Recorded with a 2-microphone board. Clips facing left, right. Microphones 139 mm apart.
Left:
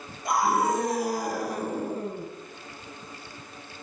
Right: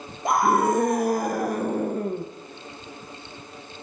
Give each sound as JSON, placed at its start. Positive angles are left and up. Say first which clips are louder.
{"t": 0.2, "sound": "a scream", "louder": "right 4 dB", "side_deg": -55, "distance_m": 2.0}